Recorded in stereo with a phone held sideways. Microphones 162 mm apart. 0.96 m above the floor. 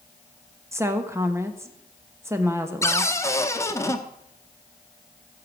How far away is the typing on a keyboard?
No typing on a keyboard in this recording.